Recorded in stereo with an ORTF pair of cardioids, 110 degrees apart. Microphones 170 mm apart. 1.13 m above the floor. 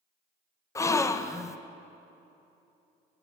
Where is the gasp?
15° left, 0.6 m.